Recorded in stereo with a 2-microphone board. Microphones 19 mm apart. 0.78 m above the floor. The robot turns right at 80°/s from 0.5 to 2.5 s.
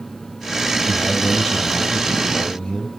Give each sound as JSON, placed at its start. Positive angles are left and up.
{"t": 0.8, "sound": "a man speaking", "azimuth_deg": -10, "distance_m": 6.5}